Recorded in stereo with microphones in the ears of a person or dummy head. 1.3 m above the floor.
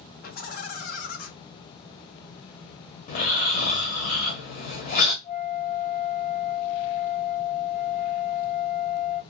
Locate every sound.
0.2 s laughter: 50° left (ahead or behind), 1.1 m
3.1 s snoring: 40° left (ahead or behind), 0.8 m
5.2 s a flute: 40° left (ahead or behind), 1.5 m